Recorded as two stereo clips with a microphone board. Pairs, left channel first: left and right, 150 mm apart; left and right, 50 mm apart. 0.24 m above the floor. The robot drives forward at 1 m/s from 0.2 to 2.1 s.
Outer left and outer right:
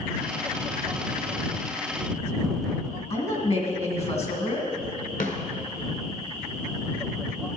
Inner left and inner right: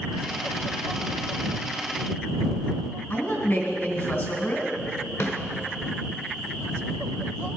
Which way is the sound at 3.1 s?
45° left (ahead or behind).